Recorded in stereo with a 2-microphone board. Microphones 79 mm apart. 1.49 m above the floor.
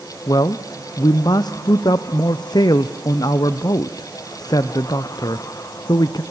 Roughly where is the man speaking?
Left.